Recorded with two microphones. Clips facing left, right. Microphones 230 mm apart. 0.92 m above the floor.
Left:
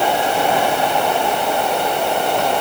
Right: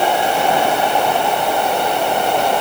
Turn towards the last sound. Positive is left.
No sound to turn to.